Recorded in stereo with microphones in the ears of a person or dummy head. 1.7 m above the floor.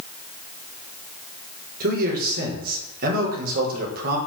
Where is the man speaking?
50° right (ahead or behind), 5 m.